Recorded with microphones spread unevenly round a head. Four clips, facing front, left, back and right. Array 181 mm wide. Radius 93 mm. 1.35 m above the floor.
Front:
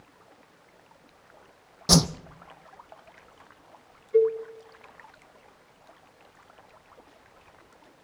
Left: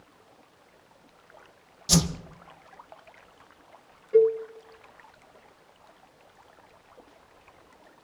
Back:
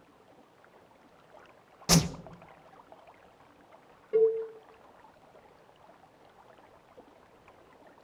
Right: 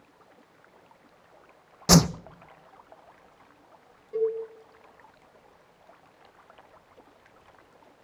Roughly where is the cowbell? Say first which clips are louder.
Left 8 dB, front 3 dB; behind.